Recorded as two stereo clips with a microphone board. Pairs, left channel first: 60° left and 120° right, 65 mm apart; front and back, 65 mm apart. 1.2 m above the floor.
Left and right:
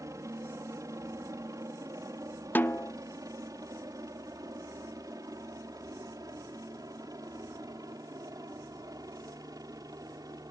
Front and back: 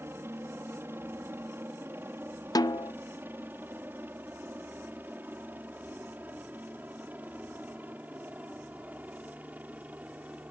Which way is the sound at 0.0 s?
135° right.